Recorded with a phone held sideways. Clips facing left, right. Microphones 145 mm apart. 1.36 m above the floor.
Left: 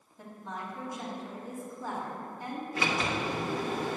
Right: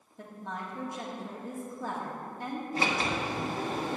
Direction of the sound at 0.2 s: 65° right (ahead or behind).